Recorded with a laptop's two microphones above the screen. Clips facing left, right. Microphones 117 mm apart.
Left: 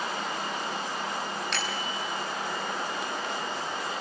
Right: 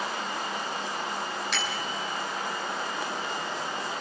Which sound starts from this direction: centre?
A bicycle bell, at 1.5 s.